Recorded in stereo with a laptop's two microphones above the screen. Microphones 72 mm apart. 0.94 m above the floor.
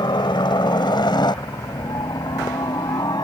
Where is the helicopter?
75° left (ahead or behind); by 3.3 s 65° left (ahead or behind).